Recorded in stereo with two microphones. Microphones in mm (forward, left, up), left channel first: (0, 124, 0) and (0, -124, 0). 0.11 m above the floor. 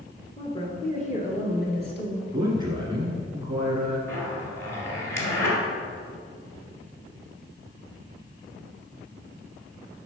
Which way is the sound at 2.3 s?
15° right (ahead or behind).